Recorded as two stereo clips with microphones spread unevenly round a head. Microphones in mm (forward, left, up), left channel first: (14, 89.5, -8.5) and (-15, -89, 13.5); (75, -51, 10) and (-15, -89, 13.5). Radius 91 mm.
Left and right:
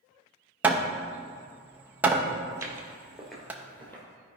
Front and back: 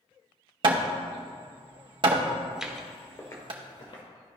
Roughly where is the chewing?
I don't hear chewing.